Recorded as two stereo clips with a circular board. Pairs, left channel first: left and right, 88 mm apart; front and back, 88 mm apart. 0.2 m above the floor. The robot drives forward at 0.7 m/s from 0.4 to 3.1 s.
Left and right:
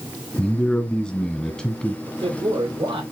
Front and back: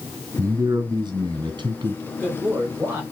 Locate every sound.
0.4 s a man speaking: 165° left, 1.7 m; by 2.0 s 175° left, 2.5 m
2.1 s a man speaking: 110° right, 6 m; by 3.0 s 115° right, 6 m